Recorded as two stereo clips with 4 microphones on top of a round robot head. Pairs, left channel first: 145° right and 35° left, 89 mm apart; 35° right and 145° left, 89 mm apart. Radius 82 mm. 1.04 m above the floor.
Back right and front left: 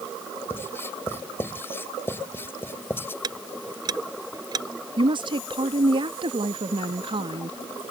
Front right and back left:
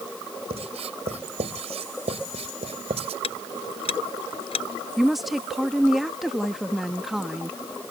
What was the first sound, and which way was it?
Writing, 145° left.